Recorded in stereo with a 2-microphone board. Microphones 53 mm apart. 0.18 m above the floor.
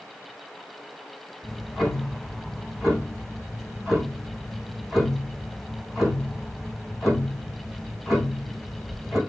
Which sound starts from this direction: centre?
Ticking, at 1.4 s.